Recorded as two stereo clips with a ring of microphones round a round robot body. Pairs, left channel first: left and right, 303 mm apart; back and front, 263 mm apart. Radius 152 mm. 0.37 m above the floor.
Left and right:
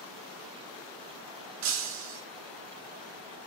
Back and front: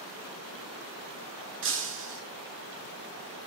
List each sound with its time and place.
1.6 s breaking glass: 55° right, 3 m